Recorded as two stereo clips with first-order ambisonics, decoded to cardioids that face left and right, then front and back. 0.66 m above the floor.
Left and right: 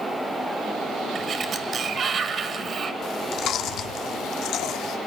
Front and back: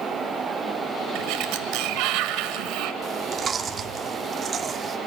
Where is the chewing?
120° left, 1.3 m.